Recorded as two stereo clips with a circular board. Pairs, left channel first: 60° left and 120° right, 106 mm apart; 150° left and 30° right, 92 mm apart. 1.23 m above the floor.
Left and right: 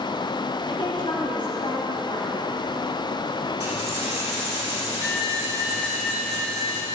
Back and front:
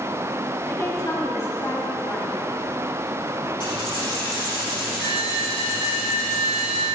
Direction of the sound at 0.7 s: 95° left.